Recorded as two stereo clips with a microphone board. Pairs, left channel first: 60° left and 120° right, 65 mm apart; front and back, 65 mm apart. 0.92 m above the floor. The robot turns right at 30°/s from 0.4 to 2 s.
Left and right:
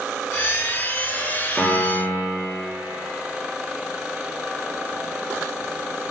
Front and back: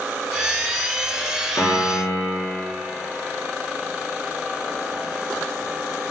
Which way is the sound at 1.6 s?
5° right.